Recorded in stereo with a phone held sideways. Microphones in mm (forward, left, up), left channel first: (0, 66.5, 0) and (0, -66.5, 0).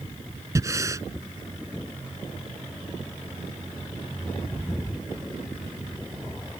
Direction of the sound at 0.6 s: 25° right (ahead or behind).